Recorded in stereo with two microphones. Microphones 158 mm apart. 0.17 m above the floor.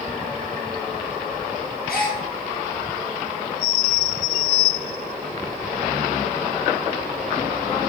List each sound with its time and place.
1.9 s a gasp: 75° left (ahead or behind), 1.5 m